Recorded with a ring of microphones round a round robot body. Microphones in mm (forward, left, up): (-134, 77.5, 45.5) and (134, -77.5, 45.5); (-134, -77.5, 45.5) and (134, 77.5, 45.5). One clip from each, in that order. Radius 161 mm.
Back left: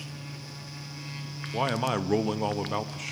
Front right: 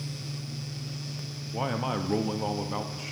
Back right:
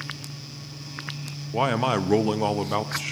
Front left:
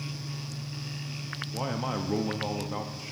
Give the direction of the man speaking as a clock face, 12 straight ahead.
5 o'clock.